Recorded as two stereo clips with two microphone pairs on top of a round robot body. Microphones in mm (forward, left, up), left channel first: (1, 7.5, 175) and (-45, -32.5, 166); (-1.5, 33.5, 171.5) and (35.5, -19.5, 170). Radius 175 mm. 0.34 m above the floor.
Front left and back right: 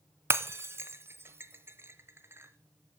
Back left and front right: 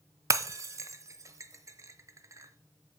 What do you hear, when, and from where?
0.3 s breaking glass: 90° right, 0.9 m